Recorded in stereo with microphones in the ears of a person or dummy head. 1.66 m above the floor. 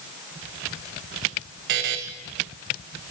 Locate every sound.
1.7 s a buzzer: 45° right (ahead or behind), 1.0 m